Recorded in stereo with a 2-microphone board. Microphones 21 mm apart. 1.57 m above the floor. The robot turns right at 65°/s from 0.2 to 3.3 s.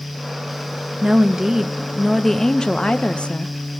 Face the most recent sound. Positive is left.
turn(degrees=85)